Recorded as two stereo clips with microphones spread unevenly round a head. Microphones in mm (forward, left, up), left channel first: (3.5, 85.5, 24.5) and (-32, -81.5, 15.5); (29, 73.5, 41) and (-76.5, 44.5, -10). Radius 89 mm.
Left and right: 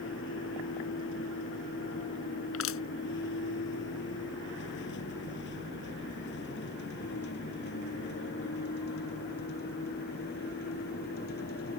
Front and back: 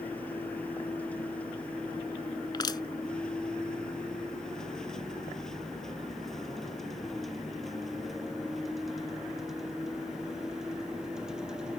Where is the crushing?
65° left.